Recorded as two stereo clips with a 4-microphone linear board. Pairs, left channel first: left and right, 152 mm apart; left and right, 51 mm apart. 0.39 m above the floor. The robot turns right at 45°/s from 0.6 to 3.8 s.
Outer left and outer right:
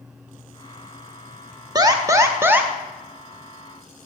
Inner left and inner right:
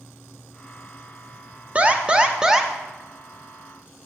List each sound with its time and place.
1.8 s an alarm: 25° right (ahead or behind), 0.7 m; by 2.7 s 10° right (ahead or behind), 0.7 m